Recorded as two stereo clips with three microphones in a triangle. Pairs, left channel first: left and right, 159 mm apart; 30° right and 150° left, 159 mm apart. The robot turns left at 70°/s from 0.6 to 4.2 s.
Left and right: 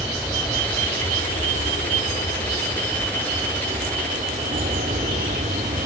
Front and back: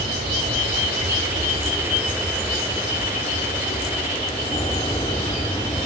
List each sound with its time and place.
0.0 s an aircraft: 170° left; by 5.9 s 80° right